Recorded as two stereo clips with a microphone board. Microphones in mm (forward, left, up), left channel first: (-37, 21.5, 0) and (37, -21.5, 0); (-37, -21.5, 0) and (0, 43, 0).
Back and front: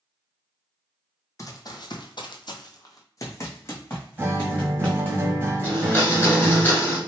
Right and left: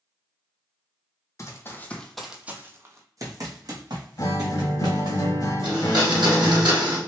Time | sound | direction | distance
1.4 | running footsteps | 165° right | 0.6 m
4.2 | a guitar | 90° right | 0.7 m
5.6 | a blender | 80° left | 1.7 m